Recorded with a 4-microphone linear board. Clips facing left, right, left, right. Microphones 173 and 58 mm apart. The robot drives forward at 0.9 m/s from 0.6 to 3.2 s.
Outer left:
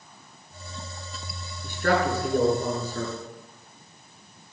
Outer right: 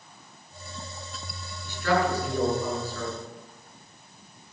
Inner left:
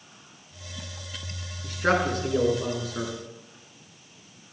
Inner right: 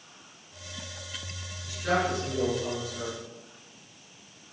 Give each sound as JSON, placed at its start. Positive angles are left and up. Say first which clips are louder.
{"t": 1.6, "sound": "a man speaking", "louder": "outer left 1 dB, inner left 3 dB", "side_deg": 55, "distance_m": 5.5}